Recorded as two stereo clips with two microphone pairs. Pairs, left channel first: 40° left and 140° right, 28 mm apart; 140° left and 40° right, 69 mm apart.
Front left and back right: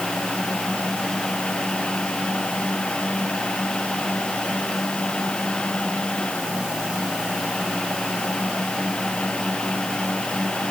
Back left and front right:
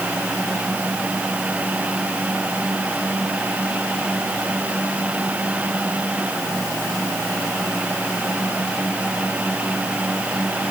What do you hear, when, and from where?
Only background noise.